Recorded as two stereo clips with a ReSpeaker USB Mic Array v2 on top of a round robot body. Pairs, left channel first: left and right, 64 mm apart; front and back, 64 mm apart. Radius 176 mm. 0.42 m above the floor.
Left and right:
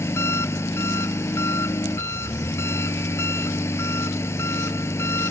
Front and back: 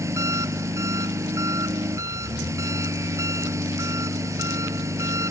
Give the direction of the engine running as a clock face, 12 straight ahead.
7 o'clock.